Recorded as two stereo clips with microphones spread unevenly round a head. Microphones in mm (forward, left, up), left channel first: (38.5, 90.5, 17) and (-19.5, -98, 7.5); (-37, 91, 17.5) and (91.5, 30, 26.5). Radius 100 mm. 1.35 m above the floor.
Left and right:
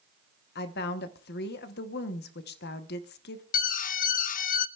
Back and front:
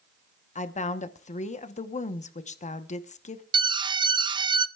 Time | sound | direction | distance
0.6 | a woman speaking | 115° left | 1.0 m
3.5 | an alarm | 30° left | 0.6 m